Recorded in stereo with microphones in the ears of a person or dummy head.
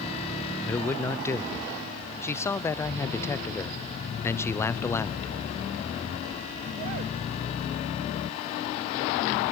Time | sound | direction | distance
0.7 | a man speaking | 15° left (ahead or behind) | 0.7 m